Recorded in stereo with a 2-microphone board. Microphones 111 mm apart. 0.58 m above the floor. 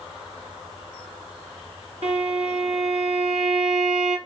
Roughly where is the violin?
Right.